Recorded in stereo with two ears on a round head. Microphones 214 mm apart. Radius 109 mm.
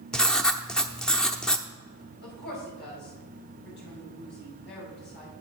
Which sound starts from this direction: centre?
Writing, at 0.1 s.